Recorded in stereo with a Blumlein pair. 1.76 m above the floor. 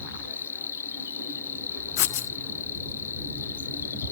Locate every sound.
0.0 s an insect: 60° left, 1.1 m
2.0 s writing: 45° left, 0.5 m